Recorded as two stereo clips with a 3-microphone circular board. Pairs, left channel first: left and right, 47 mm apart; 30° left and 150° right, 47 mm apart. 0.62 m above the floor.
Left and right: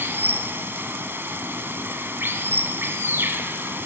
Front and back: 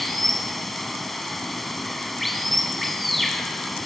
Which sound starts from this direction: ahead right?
Running water, at 0.0 s.